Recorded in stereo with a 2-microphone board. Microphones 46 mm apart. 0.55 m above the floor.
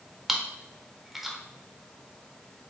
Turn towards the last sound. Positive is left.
turn(degrees=-5)  # may be behind; listen again after turning